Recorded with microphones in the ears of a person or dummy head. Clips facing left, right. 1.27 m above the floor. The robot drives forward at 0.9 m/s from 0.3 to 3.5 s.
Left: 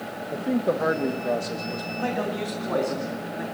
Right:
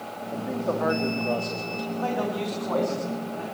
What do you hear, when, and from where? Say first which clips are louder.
0.3 s a man speaking: left 4 dB; 35° left (ahead or behind), 1.3 m; by 1.9 s 20° left (ahead or behind), 2.5 m
2.0 s a man speaking: even; 25° left (ahead or behind), 3.5 m; by 3.4 s 20° left (ahead or behind), 4.5 m